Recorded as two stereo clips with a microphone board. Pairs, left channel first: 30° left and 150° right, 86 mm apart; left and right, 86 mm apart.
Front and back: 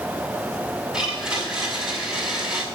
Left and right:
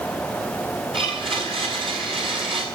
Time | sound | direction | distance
0.9 | a blender | 65° right | 6 m